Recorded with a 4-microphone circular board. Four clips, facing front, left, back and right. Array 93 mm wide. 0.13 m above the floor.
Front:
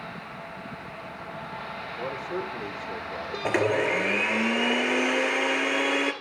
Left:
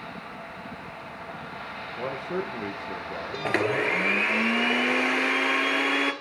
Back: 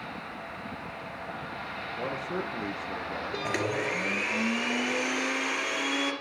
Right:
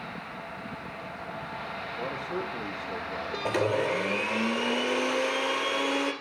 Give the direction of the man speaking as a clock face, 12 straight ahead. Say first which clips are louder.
Left 4 dB, front 1 dB; 8 o'clock.